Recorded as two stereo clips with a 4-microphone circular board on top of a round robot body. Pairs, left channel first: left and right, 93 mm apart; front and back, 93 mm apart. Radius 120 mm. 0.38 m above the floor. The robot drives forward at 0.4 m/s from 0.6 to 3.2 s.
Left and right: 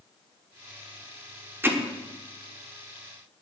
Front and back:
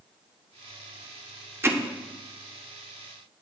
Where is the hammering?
140° right, 1.3 m.